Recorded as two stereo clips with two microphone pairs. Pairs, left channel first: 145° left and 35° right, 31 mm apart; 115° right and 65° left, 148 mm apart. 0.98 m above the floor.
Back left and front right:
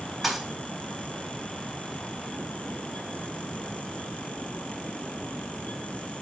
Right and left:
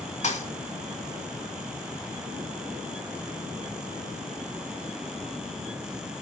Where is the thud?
115° right, 1.1 m.